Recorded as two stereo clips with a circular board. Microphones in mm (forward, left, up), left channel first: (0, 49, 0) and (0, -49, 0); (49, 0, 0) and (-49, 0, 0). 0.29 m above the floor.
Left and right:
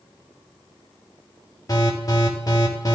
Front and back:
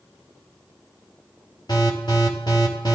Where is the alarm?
40° left, 6.5 m.